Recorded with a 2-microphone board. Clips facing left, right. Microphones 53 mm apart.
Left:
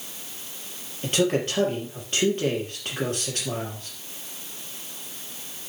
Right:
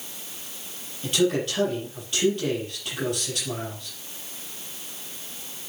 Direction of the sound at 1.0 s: 40° left (ahead or behind).